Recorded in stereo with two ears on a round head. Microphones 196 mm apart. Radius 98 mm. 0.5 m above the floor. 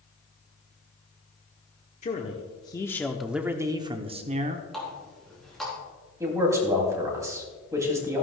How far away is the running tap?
About 4 m.